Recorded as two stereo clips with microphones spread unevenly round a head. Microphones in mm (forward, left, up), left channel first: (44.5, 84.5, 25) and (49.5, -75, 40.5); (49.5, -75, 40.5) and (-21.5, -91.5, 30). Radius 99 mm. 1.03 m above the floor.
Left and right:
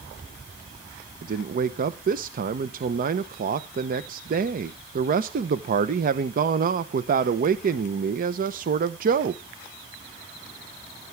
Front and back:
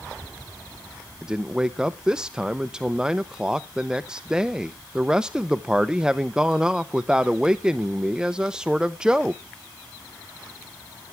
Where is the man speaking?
95° right, 0.7 m.